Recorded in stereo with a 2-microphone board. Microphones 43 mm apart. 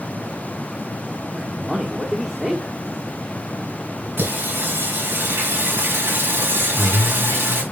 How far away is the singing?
About 4.5 m.